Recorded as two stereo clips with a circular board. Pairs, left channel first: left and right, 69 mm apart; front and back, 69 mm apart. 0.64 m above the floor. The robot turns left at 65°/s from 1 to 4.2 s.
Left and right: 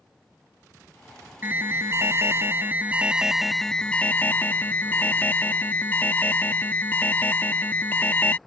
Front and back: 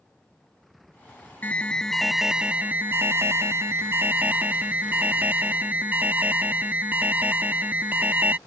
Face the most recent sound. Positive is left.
turn(degrees=135)